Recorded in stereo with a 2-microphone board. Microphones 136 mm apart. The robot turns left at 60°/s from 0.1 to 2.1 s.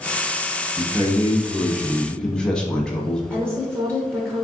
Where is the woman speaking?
15° right (ahead or behind), 0.7 m.